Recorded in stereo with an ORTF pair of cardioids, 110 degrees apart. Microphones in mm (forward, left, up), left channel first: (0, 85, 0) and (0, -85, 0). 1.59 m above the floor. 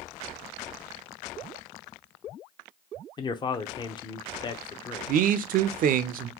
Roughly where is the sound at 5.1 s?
Ahead right.